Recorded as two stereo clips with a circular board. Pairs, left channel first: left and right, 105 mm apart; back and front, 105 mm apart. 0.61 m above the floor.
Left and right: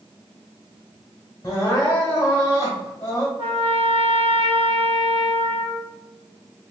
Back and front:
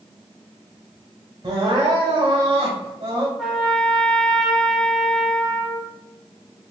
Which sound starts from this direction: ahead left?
Crying, at 1.4 s.